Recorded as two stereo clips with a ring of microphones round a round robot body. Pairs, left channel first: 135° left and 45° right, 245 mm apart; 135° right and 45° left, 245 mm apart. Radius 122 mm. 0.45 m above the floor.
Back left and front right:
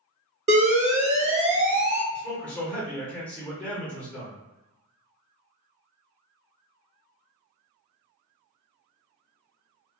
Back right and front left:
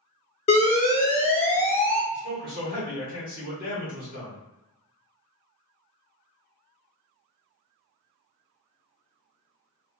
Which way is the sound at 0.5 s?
90° right.